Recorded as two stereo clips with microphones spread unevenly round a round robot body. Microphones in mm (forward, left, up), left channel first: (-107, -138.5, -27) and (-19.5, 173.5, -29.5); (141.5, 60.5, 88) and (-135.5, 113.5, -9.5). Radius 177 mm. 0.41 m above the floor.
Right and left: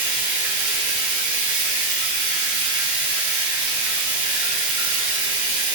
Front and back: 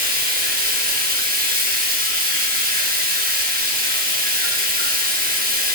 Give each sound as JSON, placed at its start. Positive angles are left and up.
{"t": 0.0, "sound": "running water", "azimuth_deg": 110, "distance_m": 3.5}